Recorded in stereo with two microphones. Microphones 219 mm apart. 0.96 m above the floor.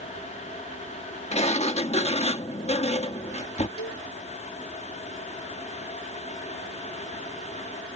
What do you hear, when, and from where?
1.3 s a sliding door: 30° left (ahead or behind)
3.8 s a cowbell: 90° left